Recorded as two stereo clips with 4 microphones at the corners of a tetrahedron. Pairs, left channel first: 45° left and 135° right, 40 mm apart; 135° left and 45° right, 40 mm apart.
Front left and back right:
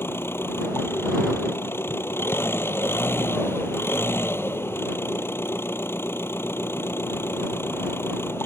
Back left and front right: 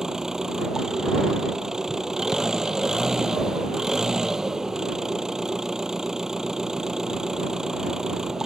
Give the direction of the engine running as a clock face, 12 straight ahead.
11 o'clock.